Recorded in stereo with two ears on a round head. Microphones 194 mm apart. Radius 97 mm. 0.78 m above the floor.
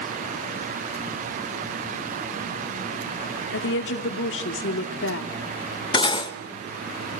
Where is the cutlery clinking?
20° left (ahead or behind), 1.2 m.